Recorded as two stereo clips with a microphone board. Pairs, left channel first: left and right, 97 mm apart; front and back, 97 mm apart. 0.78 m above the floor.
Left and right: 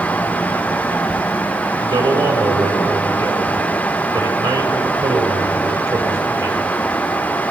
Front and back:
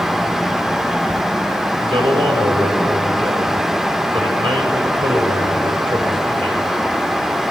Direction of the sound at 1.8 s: 140° right.